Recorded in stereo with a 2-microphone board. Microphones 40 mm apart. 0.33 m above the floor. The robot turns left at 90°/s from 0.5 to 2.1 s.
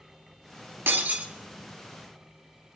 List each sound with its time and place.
0.9 s breaking glass: 115° right, 1.1 m; by 1.3 s 155° right, 1.1 m